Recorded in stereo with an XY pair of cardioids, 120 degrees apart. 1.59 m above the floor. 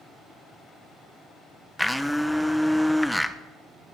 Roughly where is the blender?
Ahead.